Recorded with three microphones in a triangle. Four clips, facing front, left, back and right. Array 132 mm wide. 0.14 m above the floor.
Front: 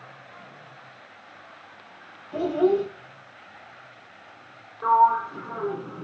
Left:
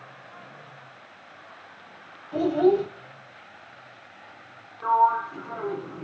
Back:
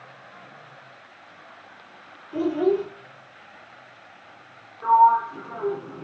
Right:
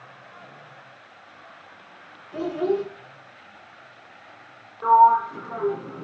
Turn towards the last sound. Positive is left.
turn(degrees=-30)